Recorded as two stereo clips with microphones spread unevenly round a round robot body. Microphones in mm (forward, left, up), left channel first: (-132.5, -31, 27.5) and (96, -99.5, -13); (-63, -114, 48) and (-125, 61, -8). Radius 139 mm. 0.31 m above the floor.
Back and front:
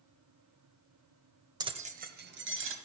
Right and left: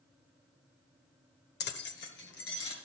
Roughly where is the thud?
No thud in this recording.